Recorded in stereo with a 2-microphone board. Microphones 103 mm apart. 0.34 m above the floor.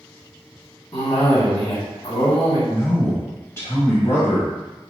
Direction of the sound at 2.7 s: 30° left (ahead or behind).